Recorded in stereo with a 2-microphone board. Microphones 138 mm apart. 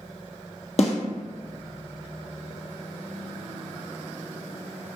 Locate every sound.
0.8 s a snare drum: 60° left (ahead or behind), 1.0 m